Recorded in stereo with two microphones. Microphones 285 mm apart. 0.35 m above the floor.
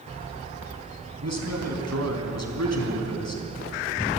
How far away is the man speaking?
About 3.5 m.